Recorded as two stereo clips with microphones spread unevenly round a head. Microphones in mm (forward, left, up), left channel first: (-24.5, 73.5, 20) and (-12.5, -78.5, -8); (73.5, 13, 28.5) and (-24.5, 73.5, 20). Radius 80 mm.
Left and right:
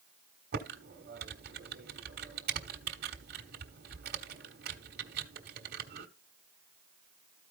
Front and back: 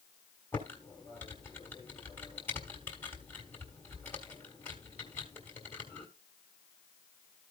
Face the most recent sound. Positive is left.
turn(degrees=-110)